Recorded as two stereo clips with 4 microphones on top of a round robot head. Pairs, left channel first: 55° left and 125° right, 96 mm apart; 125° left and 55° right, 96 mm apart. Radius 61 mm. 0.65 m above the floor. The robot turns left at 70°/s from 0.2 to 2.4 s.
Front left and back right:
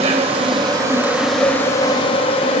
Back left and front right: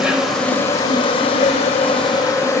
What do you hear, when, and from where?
0.0 s an insect: 140° right, 5.5 m; by 2.6 s 70° left, 5.5 m